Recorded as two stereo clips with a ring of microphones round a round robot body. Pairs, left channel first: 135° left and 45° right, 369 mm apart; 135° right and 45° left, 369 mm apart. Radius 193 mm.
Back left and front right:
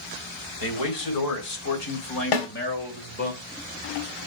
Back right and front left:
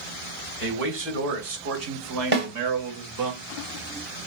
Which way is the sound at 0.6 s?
105° left.